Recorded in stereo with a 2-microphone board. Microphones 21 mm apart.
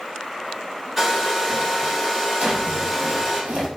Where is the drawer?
60° right (ahead or behind), 0.6 m.